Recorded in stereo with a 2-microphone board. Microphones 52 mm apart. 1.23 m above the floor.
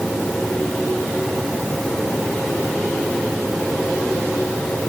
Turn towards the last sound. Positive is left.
No sound to turn to.